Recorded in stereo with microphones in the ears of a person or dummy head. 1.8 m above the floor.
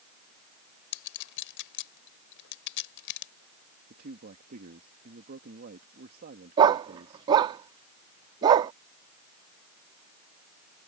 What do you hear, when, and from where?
0.9 s a clink: 65° left (ahead or behind)
3.9 s a man speaking: 40° right (ahead or behind)
6.6 s a dog barking: 20° right (ahead or behind)